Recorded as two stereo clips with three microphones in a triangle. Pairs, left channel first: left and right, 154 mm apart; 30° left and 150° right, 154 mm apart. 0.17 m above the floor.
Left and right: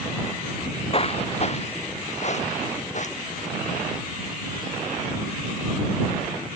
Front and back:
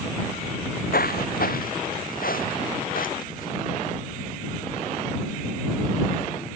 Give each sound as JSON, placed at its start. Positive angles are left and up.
{"t": 0.6, "sound": "footsteps", "azimuth_deg": 35}